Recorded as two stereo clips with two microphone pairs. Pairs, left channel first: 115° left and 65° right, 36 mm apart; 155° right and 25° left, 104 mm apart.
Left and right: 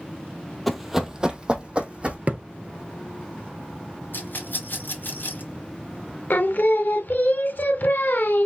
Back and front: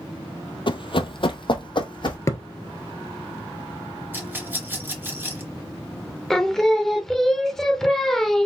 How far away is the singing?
About 0.6 m.